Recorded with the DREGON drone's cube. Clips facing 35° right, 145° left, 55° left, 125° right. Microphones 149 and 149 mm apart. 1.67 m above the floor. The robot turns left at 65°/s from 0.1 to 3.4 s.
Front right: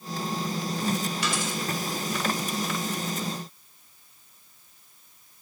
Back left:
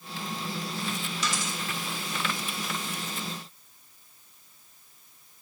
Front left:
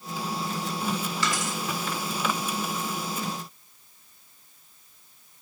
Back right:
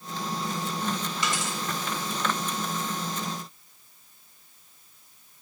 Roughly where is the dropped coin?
Ahead right.